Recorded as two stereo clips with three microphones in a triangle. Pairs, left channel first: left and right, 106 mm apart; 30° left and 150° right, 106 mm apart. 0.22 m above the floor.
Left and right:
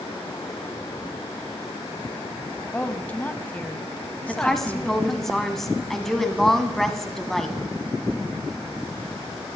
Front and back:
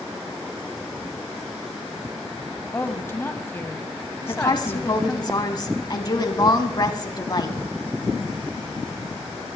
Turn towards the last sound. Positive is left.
turn(degrees=5)